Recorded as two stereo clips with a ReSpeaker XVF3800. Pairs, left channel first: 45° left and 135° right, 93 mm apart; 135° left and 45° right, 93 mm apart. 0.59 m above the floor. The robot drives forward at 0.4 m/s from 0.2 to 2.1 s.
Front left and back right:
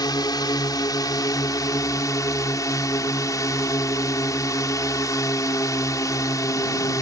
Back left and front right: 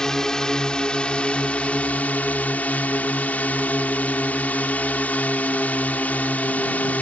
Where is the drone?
55° left; by 7.0 s 70° left.